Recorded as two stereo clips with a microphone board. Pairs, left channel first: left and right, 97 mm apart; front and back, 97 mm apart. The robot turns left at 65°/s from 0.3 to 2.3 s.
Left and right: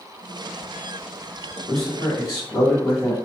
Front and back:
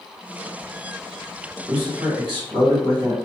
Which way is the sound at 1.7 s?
Straight behind.